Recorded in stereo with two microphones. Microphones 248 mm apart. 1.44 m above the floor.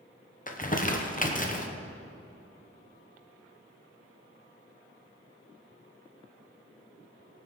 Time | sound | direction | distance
0.5 | crumpling | 35° left (ahead or behind) | 1.1 m